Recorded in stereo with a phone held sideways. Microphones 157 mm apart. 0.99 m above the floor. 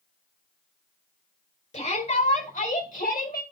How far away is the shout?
About 4 m.